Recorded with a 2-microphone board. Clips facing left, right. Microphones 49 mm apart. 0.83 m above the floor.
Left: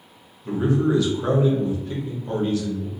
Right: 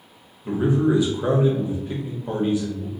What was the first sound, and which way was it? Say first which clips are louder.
A man speaking: right 1 dB; 20° right (ahead or behind).